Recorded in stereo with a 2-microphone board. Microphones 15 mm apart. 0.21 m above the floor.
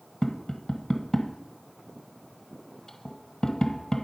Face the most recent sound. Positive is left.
turn(degrees=25)  # may be behind; listen again after turning